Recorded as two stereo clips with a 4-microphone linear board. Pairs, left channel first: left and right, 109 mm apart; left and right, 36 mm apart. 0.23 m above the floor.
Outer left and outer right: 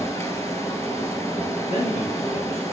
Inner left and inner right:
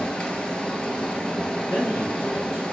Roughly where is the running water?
Left.